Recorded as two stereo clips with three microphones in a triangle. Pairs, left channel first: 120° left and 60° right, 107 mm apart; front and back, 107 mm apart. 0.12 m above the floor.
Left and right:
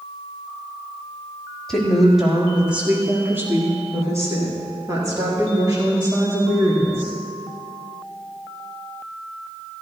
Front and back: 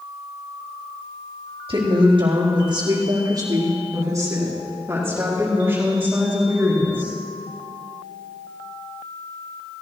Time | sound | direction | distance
1.7 | a woman speaking | 155° right | 4.5 m